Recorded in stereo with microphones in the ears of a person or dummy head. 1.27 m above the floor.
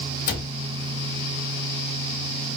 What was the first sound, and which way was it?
A cupboard door, 55° left (ahead or behind).